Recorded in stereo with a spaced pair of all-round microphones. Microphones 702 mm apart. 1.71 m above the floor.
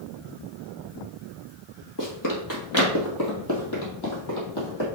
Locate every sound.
2.0 s running footsteps: 25° left (ahead or behind), 2.5 m; by 4.9 s 35° left (ahead or behind), 4 m